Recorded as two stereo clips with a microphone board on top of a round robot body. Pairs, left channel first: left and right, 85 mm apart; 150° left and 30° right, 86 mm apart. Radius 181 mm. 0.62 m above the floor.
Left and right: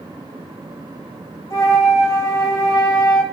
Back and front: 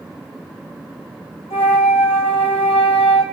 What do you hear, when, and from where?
1.5 s a flute: 145° left, 1.6 m